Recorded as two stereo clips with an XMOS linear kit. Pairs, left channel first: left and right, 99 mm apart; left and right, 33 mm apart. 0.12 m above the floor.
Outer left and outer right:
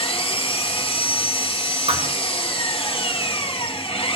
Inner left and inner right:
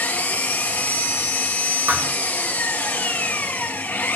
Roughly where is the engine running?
Left.